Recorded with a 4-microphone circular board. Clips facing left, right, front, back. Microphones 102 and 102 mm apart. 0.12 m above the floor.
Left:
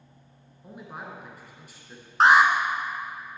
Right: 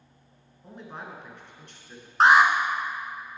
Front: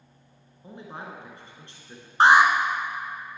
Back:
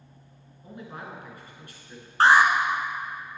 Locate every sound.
0.6 s a man speaking: 15° left, 1.6 m
2.2 s an alarm: straight ahead, 0.9 m